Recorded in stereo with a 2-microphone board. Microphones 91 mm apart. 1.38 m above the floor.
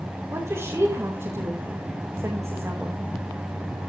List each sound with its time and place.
0.3 s a woman speaking: 30° right (ahead or behind), 2.5 m